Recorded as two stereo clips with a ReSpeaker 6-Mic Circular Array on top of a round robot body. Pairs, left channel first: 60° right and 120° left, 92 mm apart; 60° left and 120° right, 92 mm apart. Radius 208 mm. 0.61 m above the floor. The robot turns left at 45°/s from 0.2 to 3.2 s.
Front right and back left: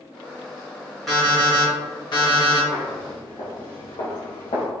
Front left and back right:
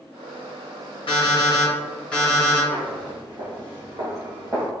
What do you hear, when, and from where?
1.1 s an alarm clock: 30° left, 1.0 m; by 2.6 s 40° right, 1.0 m
2.7 s footsteps: 100° right, 1.2 m; by 4.7 s 70° right, 1.3 m